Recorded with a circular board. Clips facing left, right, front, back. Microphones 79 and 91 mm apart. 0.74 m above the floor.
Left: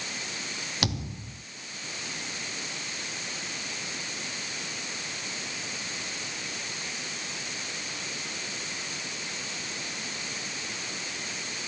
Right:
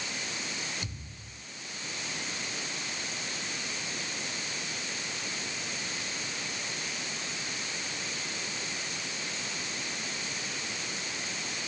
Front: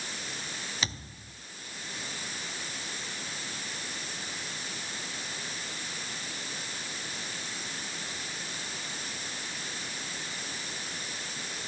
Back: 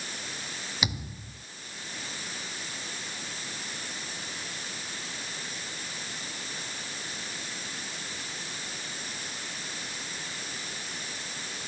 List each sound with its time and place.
0.8 s a thud: 100° left